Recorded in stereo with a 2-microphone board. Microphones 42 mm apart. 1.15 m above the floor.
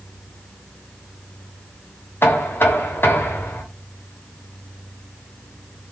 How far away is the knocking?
About 0.8 m.